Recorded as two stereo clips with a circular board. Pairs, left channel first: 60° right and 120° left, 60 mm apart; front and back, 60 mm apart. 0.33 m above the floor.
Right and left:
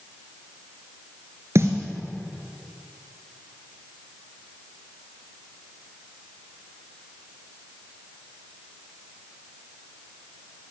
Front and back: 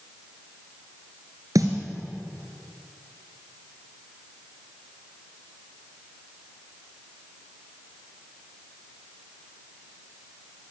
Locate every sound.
1.6 s a snare drum: 160° left, 2.0 m